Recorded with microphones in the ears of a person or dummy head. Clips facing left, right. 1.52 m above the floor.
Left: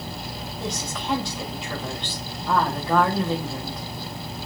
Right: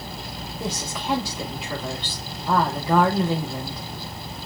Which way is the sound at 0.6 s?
15° right (ahead or behind).